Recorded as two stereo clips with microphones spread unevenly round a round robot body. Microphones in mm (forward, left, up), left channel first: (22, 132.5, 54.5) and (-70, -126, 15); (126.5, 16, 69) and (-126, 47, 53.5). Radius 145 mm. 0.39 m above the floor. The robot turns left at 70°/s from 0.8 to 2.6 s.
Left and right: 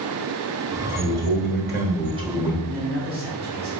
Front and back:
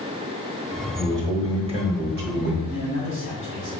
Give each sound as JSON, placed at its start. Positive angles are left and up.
{"t": 1.0, "sound": "a man speaking", "azimuth_deg": -80, "distance_m": 1.1}
{"t": 2.6, "sound": "a man speaking", "azimuth_deg": -155, "distance_m": 1.8}